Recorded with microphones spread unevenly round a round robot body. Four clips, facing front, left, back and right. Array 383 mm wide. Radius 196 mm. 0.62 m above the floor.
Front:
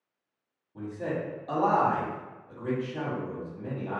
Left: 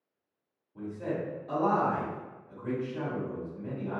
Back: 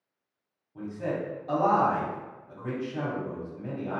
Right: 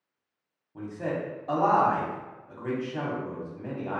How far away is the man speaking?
About 1.3 m.